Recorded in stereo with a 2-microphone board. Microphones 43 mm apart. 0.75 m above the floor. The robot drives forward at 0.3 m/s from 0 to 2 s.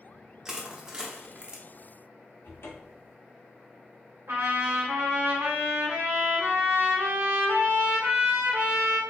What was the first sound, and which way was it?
Crushing, 15° right (ahead or behind).